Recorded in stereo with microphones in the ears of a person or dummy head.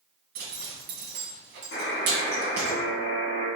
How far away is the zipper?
About 1.6 m.